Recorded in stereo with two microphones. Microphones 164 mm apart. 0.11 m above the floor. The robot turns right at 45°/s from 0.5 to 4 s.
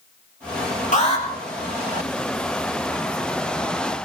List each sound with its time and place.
0.9 s an alarm: 50° left (ahead or behind), 3 m; by 1.2 s 40° left (ahead or behind), 3 m